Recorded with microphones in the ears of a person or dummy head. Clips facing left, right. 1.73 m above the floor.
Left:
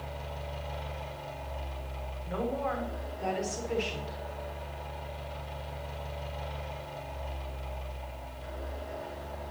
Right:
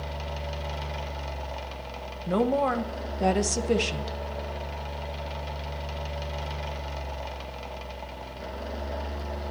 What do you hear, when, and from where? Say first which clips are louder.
0.0 s a fan: right 5 dB; 70° right (ahead or behind), 1.6 m
2.3 s a woman speaking: right 8 dB; 60° right (ahead or behind), 1.1 m